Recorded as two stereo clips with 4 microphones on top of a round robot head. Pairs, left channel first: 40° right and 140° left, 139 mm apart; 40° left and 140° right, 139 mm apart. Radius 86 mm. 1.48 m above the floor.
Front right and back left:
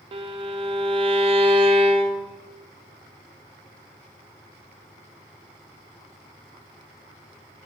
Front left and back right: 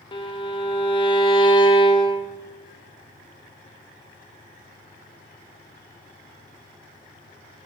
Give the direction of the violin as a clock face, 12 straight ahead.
9 o'clock.